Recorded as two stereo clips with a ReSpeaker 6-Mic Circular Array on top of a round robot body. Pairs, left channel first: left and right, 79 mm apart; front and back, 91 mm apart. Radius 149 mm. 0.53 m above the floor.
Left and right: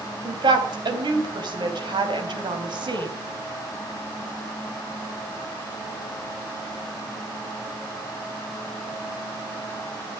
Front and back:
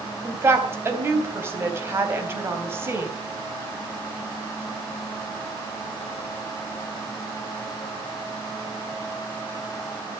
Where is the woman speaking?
115° right, 3.5 m.